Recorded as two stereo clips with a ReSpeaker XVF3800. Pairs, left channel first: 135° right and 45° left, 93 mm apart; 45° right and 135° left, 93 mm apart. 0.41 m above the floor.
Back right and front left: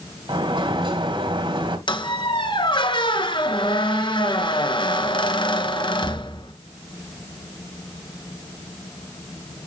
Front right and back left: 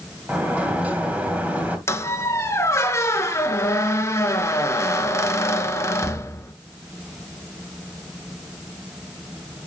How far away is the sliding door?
About 2.5 m.